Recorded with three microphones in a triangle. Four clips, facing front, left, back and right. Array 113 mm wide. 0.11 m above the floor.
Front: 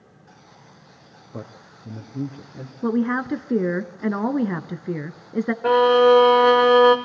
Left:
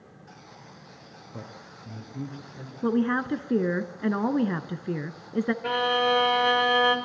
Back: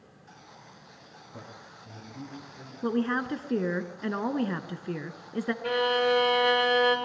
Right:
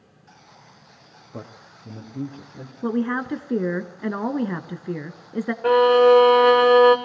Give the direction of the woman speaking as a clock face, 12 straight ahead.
12 o'clock.